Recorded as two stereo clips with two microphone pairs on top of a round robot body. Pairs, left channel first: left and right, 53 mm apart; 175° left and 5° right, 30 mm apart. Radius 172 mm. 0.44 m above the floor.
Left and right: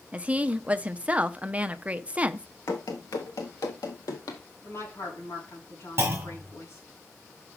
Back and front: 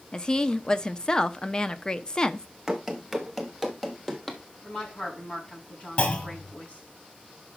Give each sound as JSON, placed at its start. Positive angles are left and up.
{"t": 0.1, "sound": "a woman speaking", "azimuth_deg": -145, "distance_m": 0.8}
{"t": 2.7, "sound": "running footsteps", "azimuth_deg": 70, "distance_m": 0.7}
{"t": 4.6, "sound": "a woman speaking", "azimuth_deg": 125, "distance_m": 4.5}
{"t": 6.0, "sound": "a clunk", "azimuth_deg": -140, "distance_m": 1.5}